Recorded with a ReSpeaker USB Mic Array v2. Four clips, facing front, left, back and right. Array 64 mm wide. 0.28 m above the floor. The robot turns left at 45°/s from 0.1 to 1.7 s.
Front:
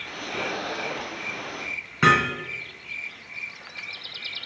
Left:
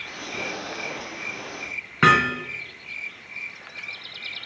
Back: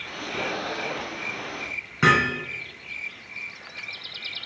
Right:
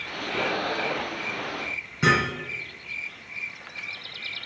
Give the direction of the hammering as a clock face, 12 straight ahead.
9 o'clock.